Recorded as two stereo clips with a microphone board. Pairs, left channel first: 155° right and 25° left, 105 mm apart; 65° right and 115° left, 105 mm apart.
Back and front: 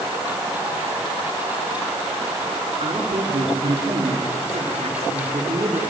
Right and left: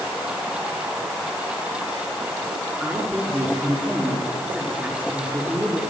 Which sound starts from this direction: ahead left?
A woman speaking, at 2.8 s.